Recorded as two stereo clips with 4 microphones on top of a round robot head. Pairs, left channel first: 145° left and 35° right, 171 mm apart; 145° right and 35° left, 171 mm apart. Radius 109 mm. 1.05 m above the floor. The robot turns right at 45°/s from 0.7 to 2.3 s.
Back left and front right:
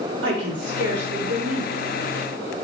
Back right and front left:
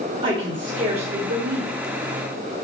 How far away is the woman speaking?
About 0.9 m.